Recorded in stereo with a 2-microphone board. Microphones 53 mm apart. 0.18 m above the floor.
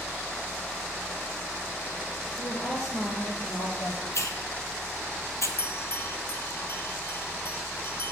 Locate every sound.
2.3 s a woman speaking: 70° left (ahead or behind), 4 m; by 4.0 s 60° left (ahead or behind), 3.5 m
4.1 s a hiss: 65° left (ahead or behind), 1.0 m
5.6 s a bell: 55° left (ahead or behind), 0.6 m